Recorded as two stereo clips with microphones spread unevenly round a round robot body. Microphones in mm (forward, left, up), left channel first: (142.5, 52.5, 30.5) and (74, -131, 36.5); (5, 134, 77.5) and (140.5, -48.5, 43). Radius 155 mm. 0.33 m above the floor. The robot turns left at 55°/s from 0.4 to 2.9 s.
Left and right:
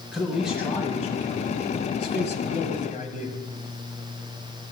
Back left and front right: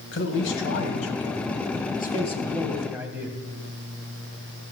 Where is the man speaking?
165° left, 2 m; by 3.4 s 25° left, 2 m.